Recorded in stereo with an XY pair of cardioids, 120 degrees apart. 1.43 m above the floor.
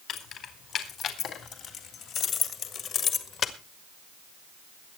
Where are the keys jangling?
60° left, 4 m; by 3.5 s 50° left, 1.6 m.